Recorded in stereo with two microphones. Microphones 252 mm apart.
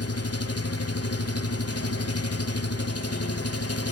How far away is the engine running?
About 1.6 m.